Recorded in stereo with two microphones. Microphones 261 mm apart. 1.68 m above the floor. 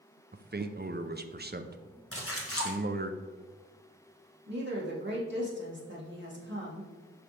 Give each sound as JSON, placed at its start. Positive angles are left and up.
{"t": 0.3, "sound": "a man speaking", "side_deg": -40, "distance_m": 0.6}
{"t": 2.1, "sound": "a splash", "side_deg": 60, "distance_m": 1.4}
{"t": 4.5, "sound": "a woman speaking", "side_deg": -45, "distance_m": 2.5}